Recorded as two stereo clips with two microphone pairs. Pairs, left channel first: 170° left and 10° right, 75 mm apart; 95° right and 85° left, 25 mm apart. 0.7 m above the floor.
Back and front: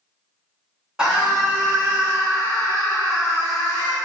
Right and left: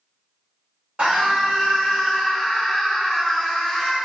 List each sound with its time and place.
1.0 s a scream: 70° left, 1.5 m; by 4.0 s 10° right, 1.5 m